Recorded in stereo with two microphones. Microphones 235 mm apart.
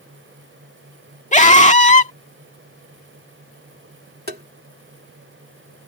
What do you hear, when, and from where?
1.3 s a scream: 30° left (ahead or behind)
4.3 s tapping: 45° right (ahead or behind)